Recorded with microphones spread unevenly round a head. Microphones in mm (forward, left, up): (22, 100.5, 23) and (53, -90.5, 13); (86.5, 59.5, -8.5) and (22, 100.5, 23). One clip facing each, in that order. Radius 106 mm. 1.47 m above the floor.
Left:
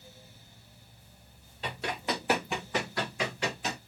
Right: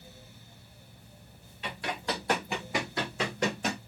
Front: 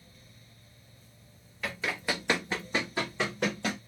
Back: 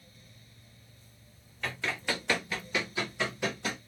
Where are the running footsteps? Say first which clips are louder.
Left 1 dB, front 1 dB; 80° left, 1.7 m; by 3.8 s 80° right, 1.9 m.